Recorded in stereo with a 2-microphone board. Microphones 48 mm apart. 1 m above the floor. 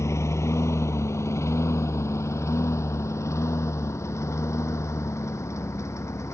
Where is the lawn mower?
80° left; by 6.3 s 85° left.